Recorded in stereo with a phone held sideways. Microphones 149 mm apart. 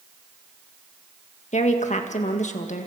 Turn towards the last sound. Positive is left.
turn(degrees=50)  # may be behind; listen again after turning